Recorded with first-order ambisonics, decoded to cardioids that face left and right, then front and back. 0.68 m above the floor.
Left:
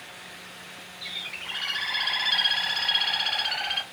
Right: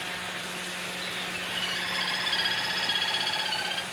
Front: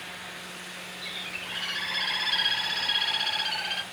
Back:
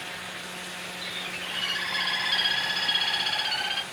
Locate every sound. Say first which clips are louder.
1.0 s a bird: left 3 dB, back 1 dB; 125° left, 1.7 m